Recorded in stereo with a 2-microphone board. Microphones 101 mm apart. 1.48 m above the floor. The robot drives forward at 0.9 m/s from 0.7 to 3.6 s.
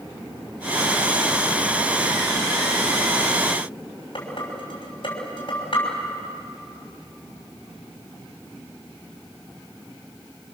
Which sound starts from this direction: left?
Dishes clattering, at 4.2 s.